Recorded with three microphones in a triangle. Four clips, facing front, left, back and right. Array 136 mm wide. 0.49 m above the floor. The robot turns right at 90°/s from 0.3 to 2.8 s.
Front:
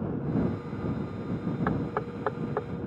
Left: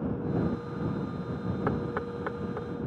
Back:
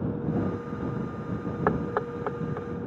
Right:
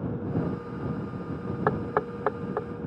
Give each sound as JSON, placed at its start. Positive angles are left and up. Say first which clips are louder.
{"t": 1.7, "sound": "knocking", "louder": "right 6 dB, back 3 dB", "azimuth_deg": -135}